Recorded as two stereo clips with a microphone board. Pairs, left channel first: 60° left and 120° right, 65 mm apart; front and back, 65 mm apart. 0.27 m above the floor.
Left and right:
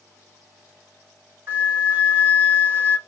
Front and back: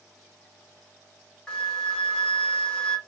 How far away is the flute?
About 2.5 m.